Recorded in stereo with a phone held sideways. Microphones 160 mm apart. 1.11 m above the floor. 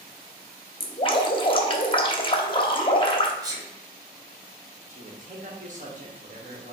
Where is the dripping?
30° left (ahead or behind), 0.7 m.